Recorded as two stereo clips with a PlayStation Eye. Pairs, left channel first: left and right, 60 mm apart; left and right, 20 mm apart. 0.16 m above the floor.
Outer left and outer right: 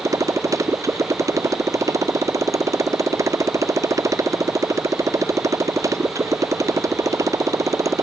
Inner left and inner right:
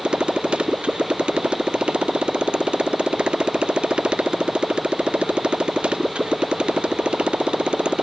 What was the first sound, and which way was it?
A motorcycle, 60° right (ahead or behind).